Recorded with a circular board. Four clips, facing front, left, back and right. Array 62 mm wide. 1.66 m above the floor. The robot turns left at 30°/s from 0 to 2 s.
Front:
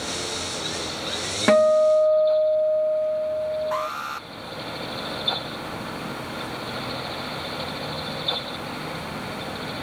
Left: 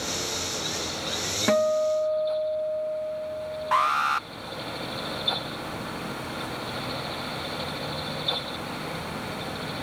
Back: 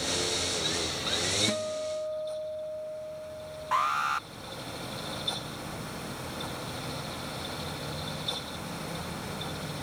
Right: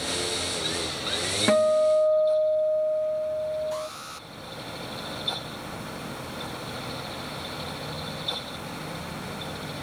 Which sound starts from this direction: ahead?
A guitar, at 1.5 s.